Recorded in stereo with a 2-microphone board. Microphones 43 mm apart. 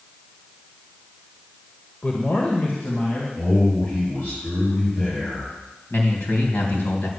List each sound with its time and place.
2.0 s a man speaking: 35° left (ahead or behind), 1.4 m; by 3.3 s 55° left (ahead or behind), 2.5 m
3.4 s a man speaking: 50° left (ahead or behind), 6 m
5.9 s a man speaking: 60° left (ahead or behind), 3 m